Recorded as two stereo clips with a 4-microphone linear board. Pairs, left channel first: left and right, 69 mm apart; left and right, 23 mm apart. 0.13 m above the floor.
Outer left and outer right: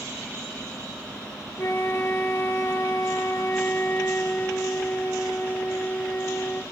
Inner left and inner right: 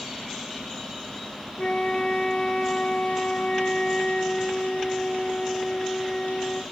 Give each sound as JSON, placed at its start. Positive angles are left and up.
{"t": 1.6, "sound": "a flute", "side_deg": 35, "distance_m": 1.0}